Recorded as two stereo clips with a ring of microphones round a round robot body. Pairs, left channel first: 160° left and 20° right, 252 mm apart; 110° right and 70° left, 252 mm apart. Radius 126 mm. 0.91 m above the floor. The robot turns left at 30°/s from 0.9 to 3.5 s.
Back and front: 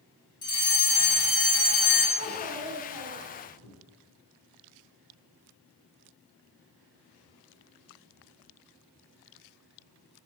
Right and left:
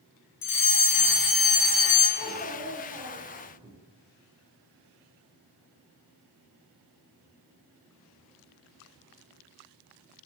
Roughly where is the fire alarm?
Behind right.